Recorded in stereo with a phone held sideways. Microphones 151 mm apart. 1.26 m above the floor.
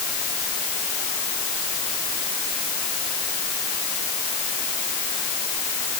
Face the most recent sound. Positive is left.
No sound to turn to.